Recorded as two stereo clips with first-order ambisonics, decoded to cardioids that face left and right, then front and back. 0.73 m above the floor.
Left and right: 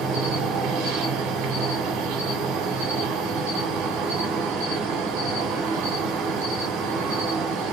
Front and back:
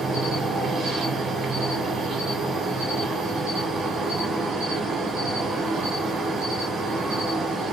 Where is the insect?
115° right, 0.9 m.